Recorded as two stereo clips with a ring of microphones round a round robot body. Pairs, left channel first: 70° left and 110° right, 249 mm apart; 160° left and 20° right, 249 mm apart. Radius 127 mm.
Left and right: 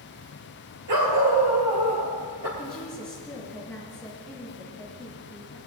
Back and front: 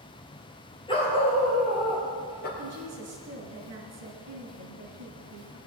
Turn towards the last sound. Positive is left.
turn(degrees=-20)